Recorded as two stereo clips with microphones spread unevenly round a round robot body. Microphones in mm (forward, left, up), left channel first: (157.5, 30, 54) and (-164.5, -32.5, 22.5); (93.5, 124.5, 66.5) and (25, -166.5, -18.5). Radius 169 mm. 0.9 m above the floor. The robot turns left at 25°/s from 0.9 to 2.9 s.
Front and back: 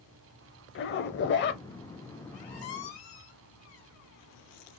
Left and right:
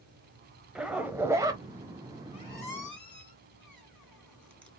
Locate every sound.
0.8 s a zipper: 5° left, 0.7 m; by 1.6 s 10° right, 0.7 m
2.3 s a squeak: 10° left, 2.5 m; by 4.7 s 5° right, 2.5 m